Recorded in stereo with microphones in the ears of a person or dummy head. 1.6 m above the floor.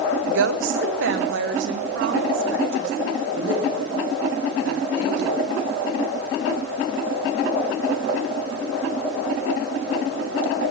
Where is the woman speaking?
65° right (ahead or behind), 0.7 m; by 5.4 s 55° right (ahead or behind), 3.5 m.